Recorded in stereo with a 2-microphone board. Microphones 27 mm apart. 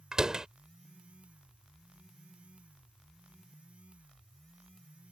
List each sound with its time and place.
0.1 s a door slam: 20° right (ahead or behind)